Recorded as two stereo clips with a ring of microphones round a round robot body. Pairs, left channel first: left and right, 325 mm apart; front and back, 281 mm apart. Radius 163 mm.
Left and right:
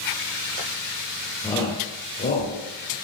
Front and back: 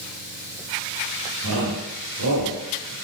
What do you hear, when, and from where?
1.4 s a shout: 170° left, 4 m; by 2.9 s 145° left, 4.5 m